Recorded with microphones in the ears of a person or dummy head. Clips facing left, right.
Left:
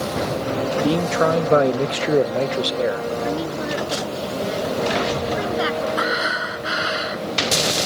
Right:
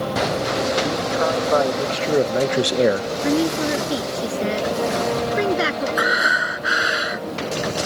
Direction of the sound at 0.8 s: 50° left (ahead or behind).